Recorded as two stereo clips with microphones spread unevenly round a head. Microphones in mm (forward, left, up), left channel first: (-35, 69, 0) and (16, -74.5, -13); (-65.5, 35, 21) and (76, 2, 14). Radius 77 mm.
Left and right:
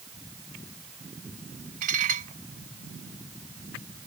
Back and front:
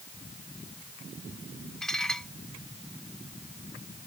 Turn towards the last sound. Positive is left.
turn(degrees=-110)